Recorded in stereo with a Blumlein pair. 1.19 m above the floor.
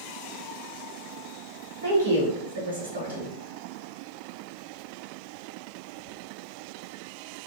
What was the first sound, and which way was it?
A woman speaking, 65° right.